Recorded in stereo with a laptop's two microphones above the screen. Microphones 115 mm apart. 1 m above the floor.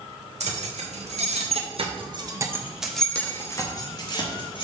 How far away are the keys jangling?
About 1.4 m.